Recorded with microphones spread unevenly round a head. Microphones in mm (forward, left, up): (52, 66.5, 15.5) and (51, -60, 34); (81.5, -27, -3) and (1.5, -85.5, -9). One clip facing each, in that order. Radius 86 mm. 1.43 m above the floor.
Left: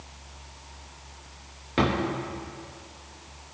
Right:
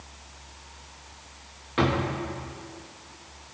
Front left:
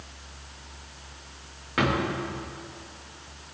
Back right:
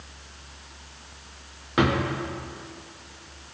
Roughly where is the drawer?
Behind left.